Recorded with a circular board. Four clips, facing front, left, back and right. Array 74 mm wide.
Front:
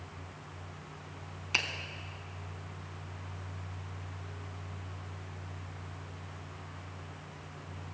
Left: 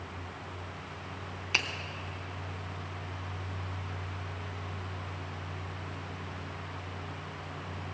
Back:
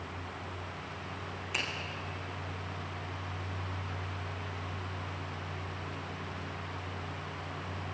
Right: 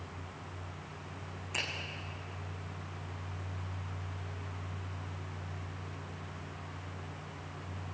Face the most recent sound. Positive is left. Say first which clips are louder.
# left 6 dB, front 3 dB
turn(degrees=65)